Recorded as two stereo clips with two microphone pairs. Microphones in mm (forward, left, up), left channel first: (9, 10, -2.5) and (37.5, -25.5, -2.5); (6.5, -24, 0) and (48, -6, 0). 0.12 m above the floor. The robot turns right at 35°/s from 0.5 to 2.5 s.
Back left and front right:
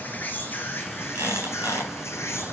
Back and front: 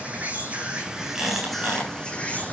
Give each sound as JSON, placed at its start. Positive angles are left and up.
{"t": 0.0, "sound": "an insect", "azimuth_deg": 80, "distance_m": 1.8}
{"t": 1.1, "sound": "a squeak", "azimuth_deg": -55, "distance_m": 7.0}